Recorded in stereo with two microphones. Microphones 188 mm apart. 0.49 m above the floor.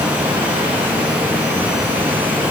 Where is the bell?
No bell in this recording.